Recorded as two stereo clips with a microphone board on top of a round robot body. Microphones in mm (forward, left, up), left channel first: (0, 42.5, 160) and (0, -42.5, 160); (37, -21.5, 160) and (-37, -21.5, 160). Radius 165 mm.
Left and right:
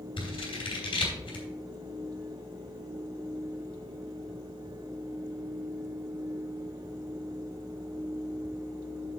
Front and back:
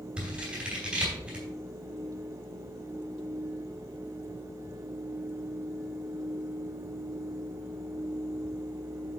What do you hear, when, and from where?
0.2 s scissors: 105° left, 3 m